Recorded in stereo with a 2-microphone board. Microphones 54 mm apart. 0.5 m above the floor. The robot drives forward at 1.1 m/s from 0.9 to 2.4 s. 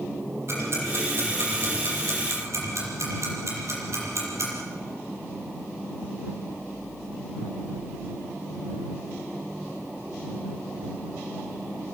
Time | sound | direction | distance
0.5 | ticking | 50° right (ahead or behind) | 7.5 m